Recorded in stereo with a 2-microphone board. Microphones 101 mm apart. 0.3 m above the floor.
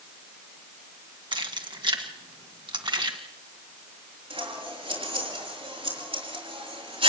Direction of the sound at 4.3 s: 80° right.